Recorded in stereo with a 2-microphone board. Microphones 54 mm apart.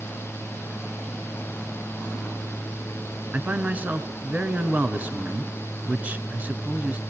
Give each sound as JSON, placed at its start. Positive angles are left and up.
{"t": 3.3, "sound": "a man speaking", "side_deg": -30, "distance_m": 2.0}